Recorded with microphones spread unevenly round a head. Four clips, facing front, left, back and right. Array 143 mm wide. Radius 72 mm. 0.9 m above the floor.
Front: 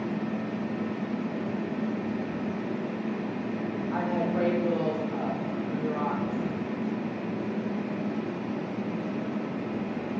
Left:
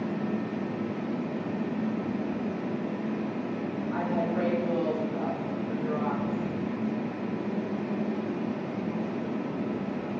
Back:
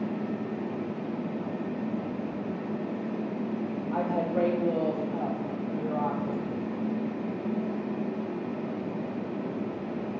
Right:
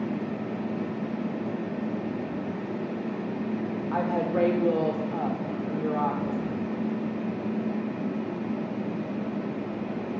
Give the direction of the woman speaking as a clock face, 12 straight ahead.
3 o'clock.